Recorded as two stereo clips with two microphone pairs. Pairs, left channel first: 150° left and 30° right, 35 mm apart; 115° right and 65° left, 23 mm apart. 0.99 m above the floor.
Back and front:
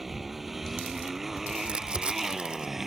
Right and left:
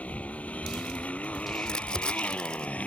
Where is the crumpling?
80° right.